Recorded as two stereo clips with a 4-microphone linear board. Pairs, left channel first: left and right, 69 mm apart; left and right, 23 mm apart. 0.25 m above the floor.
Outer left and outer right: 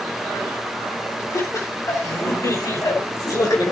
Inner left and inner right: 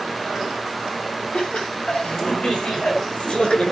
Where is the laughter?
55° left (ahead or behind), 7.5 m.